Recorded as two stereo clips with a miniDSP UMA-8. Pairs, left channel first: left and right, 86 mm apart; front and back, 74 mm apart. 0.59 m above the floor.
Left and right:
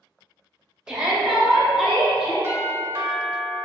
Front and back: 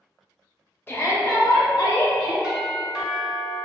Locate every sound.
0.9 s a shout: 20° right, 0.7 m; by 2.3 s 5° right, 1.4 m
2.4 s a doorbell: 110° right, 1.1 m